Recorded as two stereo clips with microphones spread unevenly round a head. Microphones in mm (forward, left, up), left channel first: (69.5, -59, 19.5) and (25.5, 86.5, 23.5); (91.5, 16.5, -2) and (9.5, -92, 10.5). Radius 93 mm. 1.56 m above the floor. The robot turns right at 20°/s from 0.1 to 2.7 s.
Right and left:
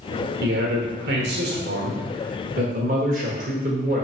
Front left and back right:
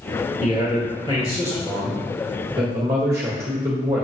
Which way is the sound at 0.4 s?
110° left.